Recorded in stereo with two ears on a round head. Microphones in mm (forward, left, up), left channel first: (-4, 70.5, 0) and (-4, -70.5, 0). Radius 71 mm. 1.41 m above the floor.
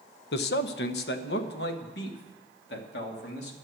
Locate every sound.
0.3 s a man speaking: 75° left (ahead or behind), 0.8 m